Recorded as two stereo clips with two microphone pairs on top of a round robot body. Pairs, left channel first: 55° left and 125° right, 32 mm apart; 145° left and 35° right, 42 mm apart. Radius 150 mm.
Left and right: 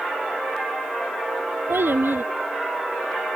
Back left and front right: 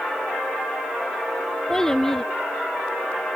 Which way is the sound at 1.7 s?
135° right.